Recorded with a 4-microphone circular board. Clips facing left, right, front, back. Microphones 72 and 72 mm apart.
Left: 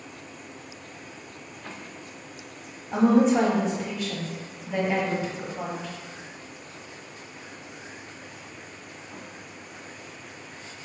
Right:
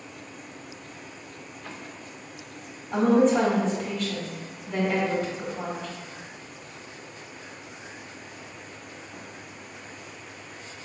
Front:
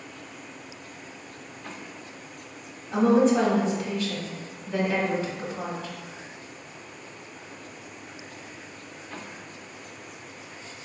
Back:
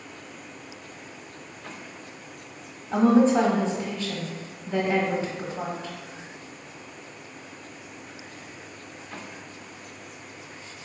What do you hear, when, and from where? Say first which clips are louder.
2.9 s a woman speaking: even, back 1 dB; 160° left, 1.1 m